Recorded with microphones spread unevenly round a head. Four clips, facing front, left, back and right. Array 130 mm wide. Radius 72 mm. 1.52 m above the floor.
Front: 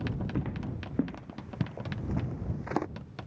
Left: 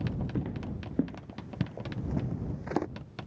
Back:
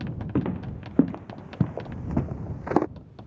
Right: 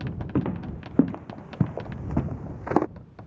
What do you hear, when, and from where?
0.3 s footsteps: 95° right; by 2.9 s 90° right